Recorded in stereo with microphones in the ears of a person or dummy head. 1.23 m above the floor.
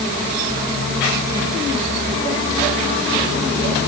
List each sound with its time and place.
Only background noise.